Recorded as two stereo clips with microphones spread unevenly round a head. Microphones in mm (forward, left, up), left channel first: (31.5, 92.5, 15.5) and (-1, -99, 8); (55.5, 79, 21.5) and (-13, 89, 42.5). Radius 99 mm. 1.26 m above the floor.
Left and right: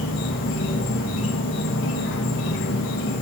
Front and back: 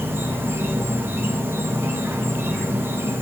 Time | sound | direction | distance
0.0 | an insect | 110° left | 1.2 m